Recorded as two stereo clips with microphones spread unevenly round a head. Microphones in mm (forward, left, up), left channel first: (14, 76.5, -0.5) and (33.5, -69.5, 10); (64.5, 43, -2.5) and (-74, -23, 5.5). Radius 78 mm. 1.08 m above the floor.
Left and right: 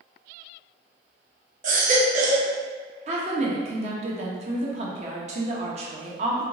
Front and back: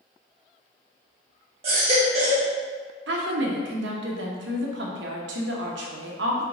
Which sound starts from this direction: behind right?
A woman speaking, at 3.1 s.